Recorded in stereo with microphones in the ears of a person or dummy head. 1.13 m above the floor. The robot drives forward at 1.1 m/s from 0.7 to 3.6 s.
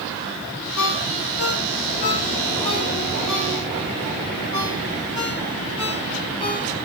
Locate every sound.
0.8 s a ringtone: 80° left, 2 m; by 6.7 s 35° left (ahead or behind), 4 m